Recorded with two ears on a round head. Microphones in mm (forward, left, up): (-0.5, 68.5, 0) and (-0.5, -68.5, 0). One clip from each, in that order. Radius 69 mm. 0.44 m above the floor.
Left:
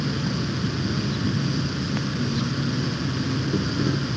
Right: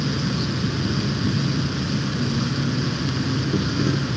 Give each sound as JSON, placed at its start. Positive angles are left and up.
{"t": 0.0, "sound": "an insect", "side_deg": 0}